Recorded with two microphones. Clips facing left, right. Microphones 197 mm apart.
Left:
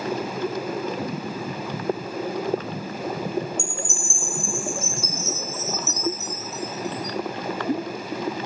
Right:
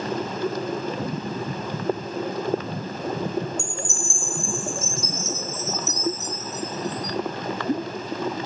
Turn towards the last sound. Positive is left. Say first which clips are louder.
# even
turn(degrees=-15)  # may be behind; listen again after turning